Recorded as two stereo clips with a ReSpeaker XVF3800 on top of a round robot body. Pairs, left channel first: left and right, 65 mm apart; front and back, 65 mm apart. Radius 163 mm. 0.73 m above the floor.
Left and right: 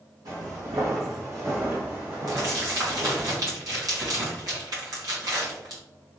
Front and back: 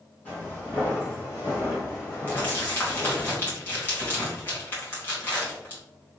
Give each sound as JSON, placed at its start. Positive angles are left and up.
{"t": 0.2, "sound": "footsteps", "azimuth_deg": -65, "distance_m": 1.7}
{"t": 2.3, "sound": "crumpling", "azimuth_deg": -60, "distance_m": 2.5}